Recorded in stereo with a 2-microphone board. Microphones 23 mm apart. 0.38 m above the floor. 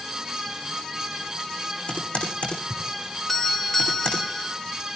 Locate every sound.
1.9 s typing on a keyboard: 75° left (ahead or behind), 8 m
3.3 s a doorbell: 10° left (ahead or behind), 1.8 m